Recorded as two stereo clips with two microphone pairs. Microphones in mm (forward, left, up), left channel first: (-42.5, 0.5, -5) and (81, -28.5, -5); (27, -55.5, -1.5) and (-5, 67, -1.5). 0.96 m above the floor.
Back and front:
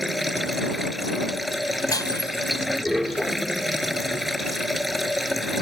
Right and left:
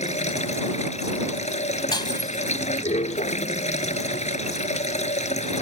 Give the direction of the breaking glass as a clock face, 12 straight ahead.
4 o'clock.